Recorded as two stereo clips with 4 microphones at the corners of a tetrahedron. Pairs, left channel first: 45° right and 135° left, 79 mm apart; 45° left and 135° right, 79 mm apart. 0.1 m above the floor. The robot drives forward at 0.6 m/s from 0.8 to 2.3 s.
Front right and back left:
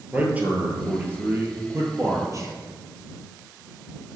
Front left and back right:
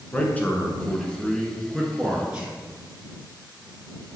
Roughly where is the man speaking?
Left.